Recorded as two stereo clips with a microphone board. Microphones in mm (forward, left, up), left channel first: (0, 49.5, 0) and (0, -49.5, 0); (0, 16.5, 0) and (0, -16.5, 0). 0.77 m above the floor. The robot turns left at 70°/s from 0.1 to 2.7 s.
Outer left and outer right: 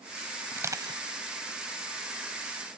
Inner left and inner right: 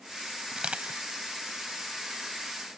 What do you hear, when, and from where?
0.5 s crushing: 20° right (ahead or behind); by 1.0 s 55° right (ahead or behind)